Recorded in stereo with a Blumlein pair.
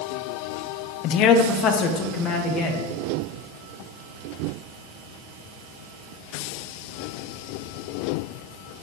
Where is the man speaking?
40° left, 0.6 m; by 2.9 s 30° left, 2.5 m.